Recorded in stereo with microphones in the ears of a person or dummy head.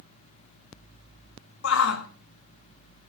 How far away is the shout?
About 1.5 m.